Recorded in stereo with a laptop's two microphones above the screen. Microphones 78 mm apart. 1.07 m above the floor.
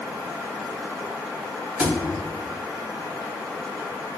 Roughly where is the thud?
Centre.